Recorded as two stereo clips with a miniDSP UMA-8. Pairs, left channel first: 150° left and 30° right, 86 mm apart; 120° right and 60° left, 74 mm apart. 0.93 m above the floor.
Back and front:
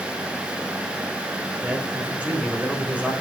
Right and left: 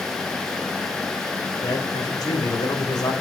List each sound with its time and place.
1.6 s a man speaking: 100° right, 3.5 m